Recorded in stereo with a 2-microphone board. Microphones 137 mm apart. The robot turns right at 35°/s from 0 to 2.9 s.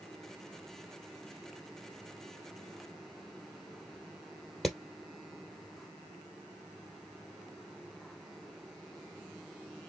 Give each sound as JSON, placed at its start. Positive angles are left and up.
{"t": 4.6, "sound": "hammering", "side_deg": 0, "distance_m": 2.0}